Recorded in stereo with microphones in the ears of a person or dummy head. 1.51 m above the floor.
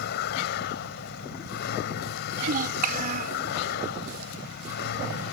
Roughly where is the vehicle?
Left.